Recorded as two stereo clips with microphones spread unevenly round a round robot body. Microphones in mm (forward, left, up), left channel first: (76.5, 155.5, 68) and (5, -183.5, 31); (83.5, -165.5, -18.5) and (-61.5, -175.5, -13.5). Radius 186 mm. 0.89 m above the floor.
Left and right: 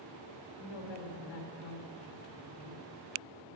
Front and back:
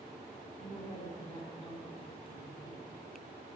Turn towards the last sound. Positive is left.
turn(degrees=75)